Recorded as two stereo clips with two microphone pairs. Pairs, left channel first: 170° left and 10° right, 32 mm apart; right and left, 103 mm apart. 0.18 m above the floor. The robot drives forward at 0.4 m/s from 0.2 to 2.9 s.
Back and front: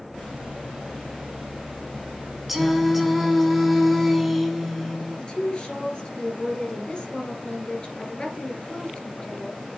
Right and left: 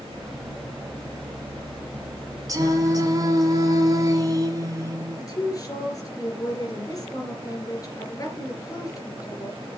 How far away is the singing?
About 1.7 m.